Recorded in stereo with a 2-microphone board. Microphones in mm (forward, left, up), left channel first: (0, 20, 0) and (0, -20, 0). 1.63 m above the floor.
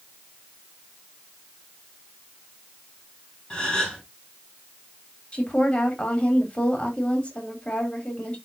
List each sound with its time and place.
3.5 s a gasp: 20° left (ahead or behind), 4 m
5.3 s a woman speaking: 25° left (ahead or behind), 3 m